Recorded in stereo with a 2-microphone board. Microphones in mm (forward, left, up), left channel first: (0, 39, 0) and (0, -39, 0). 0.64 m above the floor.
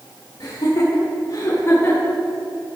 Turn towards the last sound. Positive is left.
turn(degrees=25)  # may be behind; listen again after turning